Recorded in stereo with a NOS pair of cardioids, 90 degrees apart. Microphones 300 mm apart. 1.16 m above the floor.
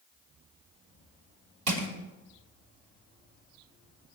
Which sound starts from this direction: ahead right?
Crushing, at 1.7 s.